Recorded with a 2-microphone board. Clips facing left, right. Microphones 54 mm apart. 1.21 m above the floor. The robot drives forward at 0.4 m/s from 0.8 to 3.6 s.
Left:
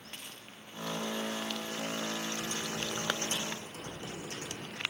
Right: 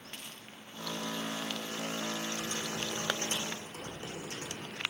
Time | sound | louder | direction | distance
2.4 | typing on a keyboard | even | 50° right (ahead or behind) | 2.5 m